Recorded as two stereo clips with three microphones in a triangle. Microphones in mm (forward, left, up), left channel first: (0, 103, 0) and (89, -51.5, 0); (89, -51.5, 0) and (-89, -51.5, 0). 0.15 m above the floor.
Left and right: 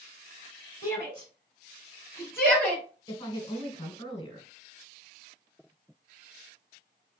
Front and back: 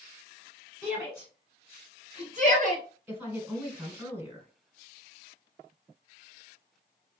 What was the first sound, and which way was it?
A shout, 80° left.